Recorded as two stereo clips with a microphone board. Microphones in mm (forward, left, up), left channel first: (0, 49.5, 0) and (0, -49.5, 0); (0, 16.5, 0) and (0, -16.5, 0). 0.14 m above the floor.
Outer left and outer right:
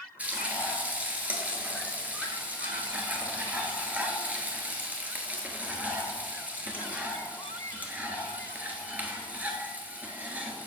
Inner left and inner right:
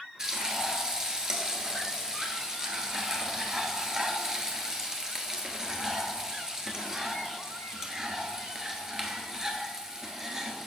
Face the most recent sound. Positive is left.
turn(degrees=-15)  # may be behind; listen again after turning